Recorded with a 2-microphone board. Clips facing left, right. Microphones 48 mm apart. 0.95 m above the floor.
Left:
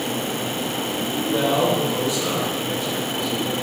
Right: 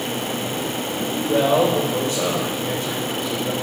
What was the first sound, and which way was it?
A man speaking, 65° right (ahead or behind).